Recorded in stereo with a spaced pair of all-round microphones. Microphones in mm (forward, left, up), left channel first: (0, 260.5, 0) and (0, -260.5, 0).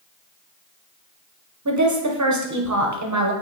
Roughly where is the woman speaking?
Right.